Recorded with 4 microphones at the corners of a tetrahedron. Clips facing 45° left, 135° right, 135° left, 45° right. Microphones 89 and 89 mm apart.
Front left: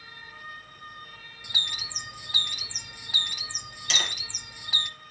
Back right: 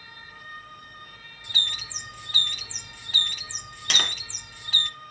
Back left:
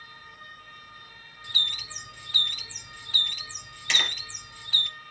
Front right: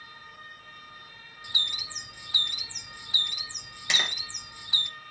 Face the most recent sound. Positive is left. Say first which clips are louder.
# back right 2 dB, back left 1 dB
turn(degrees=-115)